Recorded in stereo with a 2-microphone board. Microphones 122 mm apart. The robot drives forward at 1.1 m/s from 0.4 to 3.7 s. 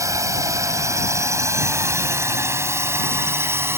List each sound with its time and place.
0.0 s a drone: 25° right (ahead or behind); by 3.8 s 20° right (ahead or behind)